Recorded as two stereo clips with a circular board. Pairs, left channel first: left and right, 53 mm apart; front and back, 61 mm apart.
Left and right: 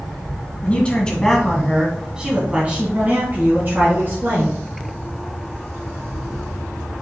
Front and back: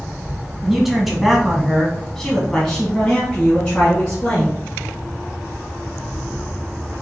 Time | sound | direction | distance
0.6 | a man speaking | 100° left | 1.3 m